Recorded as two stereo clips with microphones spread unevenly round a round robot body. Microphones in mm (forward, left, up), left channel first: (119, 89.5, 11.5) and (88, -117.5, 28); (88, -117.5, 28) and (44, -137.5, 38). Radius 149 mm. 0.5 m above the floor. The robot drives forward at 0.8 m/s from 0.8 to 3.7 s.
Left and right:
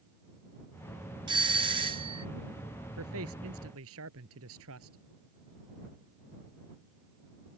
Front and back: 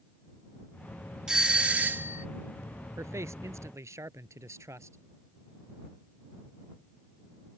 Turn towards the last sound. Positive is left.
turn(degrees=-145)